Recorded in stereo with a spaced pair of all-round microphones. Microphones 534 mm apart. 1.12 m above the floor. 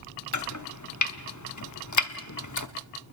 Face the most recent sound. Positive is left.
turn(degrees=35)  # may be behind; listen again after turning